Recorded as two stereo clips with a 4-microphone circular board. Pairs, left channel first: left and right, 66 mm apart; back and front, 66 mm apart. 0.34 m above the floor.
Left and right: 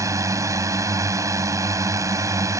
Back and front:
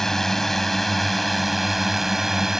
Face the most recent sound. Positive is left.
turn(degrees=-85)